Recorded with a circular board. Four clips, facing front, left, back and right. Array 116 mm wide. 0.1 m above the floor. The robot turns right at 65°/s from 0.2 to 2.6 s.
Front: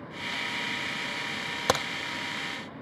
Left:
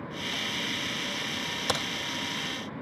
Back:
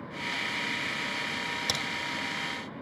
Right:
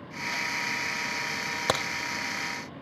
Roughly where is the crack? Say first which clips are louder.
Right 4 dB, front 9 dB; ahead right.